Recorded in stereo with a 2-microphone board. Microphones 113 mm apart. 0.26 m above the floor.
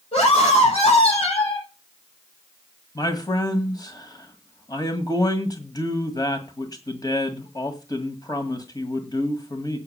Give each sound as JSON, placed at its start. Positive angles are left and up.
{"t": 0.1, "sound": "a scream", "side_deg": 65, "distance_m": 7.5}
{"t": 3.0, "sound": "a man speaking", "side_deg": 35, "distance_m": 1.8}